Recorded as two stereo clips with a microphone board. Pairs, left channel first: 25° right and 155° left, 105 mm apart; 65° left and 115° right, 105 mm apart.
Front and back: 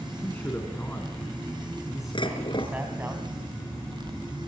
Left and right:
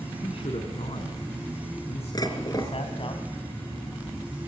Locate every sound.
0.2 s a man speaking: 45° left, 4 m; by 3.1 s 90° left, 3 m
2.1 s dishes clattering: 15° left, 4 m